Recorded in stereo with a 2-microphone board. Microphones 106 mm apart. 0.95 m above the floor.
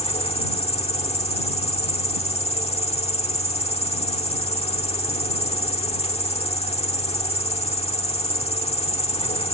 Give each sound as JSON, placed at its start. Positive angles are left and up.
{"t": 0.0, "sound": "an insect", "side_deg": 85}